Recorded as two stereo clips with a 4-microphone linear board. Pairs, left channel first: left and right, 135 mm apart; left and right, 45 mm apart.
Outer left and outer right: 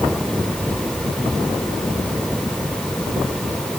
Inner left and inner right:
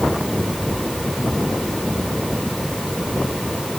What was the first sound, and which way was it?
Only background noise.